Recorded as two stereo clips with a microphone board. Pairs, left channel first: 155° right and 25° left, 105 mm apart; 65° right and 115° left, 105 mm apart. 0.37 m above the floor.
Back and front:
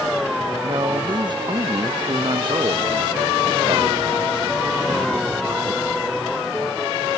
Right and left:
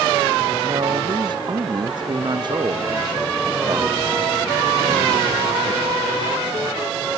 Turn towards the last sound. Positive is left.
turn(degrees=65)